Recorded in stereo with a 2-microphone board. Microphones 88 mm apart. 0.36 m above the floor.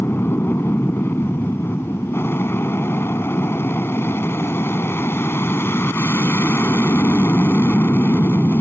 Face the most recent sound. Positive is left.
turn(degrees=25)  # may be behind; listen again after turning